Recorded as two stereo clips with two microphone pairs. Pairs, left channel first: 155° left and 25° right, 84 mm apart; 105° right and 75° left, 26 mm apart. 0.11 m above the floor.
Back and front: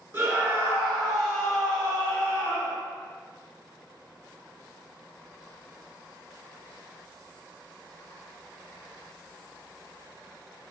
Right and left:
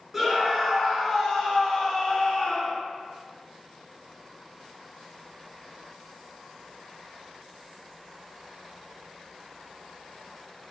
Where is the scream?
15° left, 1.9 m; by 2.8 s 140° right, 2.5 m.